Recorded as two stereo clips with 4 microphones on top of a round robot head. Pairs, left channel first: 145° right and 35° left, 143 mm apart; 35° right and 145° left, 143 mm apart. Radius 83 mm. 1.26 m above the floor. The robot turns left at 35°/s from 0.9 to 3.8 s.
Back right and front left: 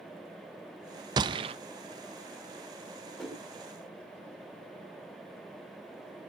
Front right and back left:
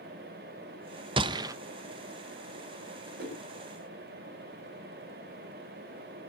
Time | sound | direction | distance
1.2 | a gunshot | 95° left | 0.5 m
3.2 | a whoosh | 125° left | 5.5 m